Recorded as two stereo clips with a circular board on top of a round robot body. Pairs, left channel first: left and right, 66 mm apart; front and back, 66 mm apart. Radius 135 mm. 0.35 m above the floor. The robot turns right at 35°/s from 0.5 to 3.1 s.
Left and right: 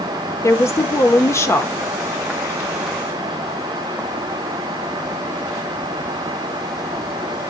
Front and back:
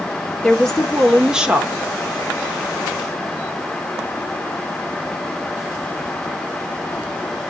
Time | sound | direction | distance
0.4 | a woman speaking | 75° left | 1.0 m